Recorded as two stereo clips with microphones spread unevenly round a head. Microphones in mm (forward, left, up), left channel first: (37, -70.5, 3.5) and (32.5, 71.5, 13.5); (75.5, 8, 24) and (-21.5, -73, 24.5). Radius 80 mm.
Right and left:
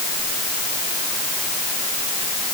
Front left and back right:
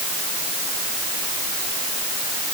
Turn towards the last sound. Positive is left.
No sound to turn to.